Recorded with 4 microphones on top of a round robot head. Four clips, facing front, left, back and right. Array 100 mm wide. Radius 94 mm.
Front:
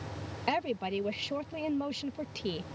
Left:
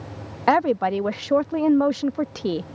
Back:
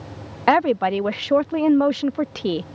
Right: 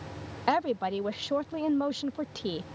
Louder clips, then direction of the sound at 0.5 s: Left 8 dB, back 15 dB; 155° left.